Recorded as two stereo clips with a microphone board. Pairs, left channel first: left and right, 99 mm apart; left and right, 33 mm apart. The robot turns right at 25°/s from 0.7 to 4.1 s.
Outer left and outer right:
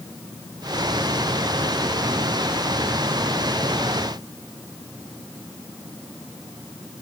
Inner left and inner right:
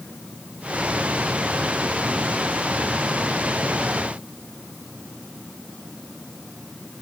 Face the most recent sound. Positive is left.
No sound to turn to.